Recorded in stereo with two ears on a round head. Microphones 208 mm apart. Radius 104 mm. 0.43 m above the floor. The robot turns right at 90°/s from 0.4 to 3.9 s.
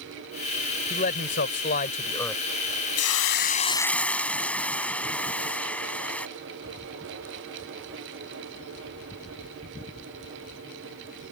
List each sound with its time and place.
0.9 s a man speaking: 45° left; by 2.4 s straight behind
3.0 s a hiss: 90° left; by 6.3 s 175° left